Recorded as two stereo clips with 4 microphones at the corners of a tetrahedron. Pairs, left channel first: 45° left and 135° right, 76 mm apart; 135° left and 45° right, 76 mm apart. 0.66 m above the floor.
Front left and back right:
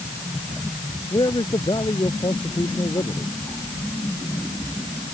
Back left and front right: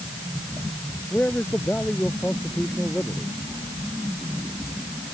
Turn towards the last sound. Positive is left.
turn(degrees=65)